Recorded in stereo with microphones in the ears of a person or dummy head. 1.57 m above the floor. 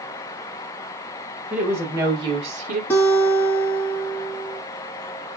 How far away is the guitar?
About 1.4 m.